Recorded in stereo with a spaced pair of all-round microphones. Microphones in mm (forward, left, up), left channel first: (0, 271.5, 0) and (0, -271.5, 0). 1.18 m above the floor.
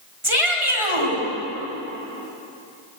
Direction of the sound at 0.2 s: 75° right (ahead or behind).